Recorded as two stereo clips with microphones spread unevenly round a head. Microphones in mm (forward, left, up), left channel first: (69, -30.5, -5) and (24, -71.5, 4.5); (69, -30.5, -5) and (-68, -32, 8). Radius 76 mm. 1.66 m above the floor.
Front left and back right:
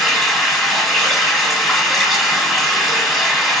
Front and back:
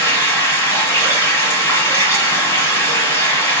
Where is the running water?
60° right, 1.4 m.